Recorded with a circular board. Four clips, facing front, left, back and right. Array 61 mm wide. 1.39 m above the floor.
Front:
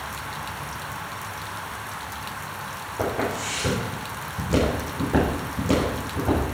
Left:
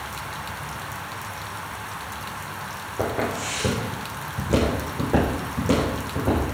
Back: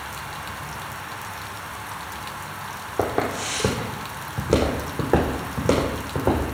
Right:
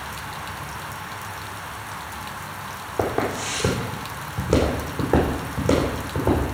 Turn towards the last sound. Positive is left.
turn(degrees=-155)